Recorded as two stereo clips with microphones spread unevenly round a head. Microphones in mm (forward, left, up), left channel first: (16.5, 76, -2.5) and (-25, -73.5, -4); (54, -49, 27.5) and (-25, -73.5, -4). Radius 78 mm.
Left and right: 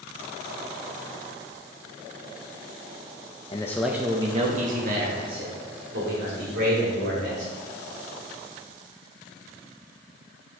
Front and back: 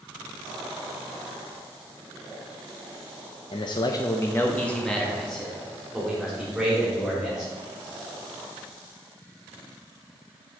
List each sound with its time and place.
3.5 s a man speaking: 35° left, 0.7 m; by 7.5 s 80° right, 4.5 m